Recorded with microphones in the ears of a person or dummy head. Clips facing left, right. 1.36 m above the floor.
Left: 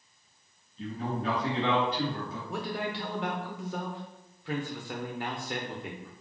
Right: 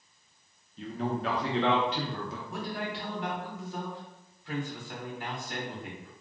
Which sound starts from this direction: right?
A man speaking, at 0.8 s.